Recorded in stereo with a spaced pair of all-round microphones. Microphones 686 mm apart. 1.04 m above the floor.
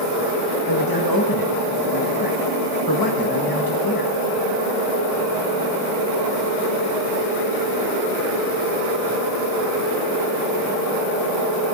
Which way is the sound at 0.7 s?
30° left (ahead or behind).